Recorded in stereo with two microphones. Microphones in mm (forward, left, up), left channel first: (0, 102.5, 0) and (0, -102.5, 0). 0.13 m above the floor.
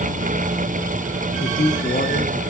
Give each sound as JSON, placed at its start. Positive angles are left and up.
{"t": 1.4, "sound": "a man speaking", "side_deg": 40, "distance_m": 1.4}